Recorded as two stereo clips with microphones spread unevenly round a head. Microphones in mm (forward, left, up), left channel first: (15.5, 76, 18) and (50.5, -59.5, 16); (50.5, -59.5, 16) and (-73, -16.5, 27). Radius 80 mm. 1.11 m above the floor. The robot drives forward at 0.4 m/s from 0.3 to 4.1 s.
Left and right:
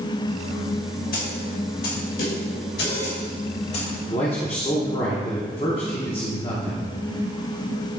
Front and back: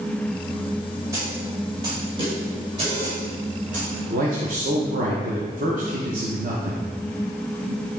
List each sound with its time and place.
1.1 s a snare drum: 90° left, 2 m; by 3.9 s 115° left, 2.5 m
4.1 s a man speaking: 150° left, 1.1 m; by 6.9 s 155° left, 1.1 m